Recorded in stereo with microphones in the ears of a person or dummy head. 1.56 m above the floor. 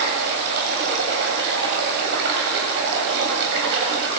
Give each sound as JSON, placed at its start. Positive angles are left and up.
{"t": 0.0, "sound": "running water", "side_deg": -65, "distance_m": 8.0}